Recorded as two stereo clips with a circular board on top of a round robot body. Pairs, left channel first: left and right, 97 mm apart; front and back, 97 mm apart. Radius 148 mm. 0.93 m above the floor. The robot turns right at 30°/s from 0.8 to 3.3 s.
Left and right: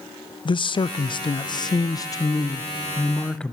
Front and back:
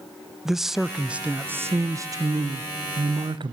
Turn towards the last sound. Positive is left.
turn(degrees=170)